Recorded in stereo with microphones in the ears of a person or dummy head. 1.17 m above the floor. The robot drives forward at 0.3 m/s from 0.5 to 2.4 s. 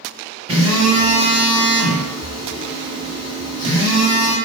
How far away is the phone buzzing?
About 1.1 m.